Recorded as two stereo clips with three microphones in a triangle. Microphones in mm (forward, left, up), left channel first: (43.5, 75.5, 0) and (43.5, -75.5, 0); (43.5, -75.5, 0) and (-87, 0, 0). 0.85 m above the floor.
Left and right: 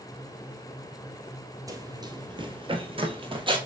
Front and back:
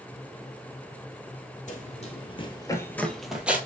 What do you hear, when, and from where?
1.7 s running footsteps: 25° right, 1.3 m; by 3.6 s 135° right, 1.2 m